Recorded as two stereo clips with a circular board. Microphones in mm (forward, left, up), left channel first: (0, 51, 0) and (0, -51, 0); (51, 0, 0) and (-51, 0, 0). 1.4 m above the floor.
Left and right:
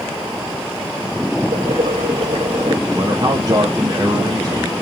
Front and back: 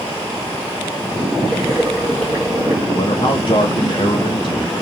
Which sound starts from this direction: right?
Boiling, at 1.5 s.